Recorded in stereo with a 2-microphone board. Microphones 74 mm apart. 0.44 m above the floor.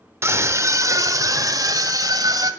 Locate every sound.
0.2 s a scream: 35° right (ahead or behind), 1.1 m; by 2.5 s 60° right (ahead or behind), 2 m